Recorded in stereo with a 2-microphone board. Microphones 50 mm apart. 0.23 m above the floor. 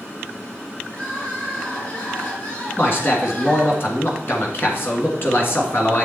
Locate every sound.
0.9 s crying: 40° left (ahead or behind), 3 m
2.8 s a man speaking: 50° left (ahead or behind), 2.5 m